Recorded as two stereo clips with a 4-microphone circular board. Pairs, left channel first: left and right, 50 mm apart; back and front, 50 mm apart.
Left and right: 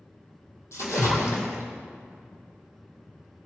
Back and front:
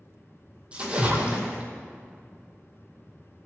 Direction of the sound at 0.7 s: 70° left.